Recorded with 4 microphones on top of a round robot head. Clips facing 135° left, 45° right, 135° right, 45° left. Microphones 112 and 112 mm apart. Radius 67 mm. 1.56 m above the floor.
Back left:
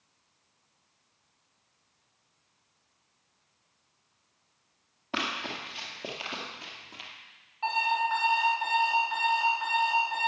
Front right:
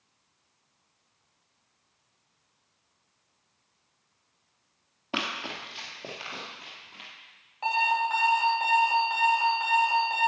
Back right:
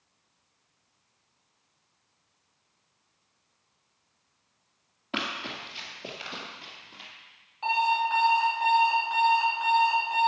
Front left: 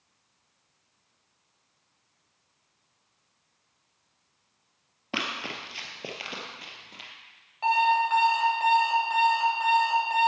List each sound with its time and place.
5.1 s running footsteps: 15° left, 1.8 m; by 7.1 s 90° left, 2.5 m
7.6 s an alarm clock: straight ahead, 3.5 m